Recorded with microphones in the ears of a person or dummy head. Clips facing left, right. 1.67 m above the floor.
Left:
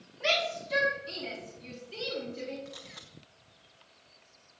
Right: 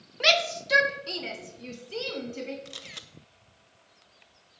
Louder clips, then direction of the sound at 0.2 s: Right 4 dB; 80° right.